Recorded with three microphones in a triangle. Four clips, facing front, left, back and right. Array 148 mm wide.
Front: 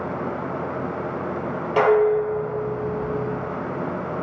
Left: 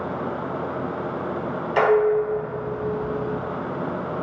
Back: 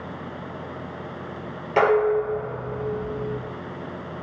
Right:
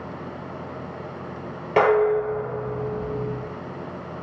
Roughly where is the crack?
I don't hear a crack.